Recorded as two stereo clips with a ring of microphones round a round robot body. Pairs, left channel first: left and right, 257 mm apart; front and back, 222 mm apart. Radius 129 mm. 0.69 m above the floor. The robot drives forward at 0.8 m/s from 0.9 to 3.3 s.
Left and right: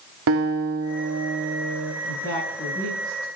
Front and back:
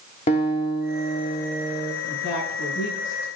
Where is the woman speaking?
30° left, 8 m; by 3.3 s 35° left, 7 m.